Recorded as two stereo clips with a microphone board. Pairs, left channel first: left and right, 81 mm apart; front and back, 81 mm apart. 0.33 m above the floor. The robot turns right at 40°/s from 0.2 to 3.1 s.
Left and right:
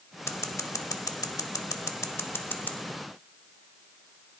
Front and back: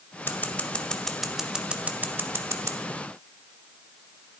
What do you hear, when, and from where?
0.3 s scissors: 50° left, 0.6 m; by 2.8 s 155° left, 0.6 m